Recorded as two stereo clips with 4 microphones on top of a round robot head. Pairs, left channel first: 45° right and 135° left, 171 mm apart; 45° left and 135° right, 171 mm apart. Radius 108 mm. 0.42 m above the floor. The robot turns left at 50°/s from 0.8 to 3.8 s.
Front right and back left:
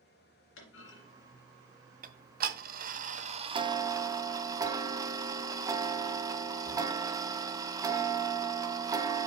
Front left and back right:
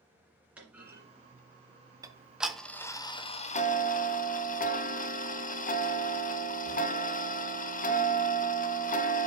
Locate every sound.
0.6 s a clunk: 55° right, 2 m; by 1.0 s 65° right, 2 m
2.0 s ticking: 160° left, 0.8 m; by 9.3 s 70° left, 0.8 m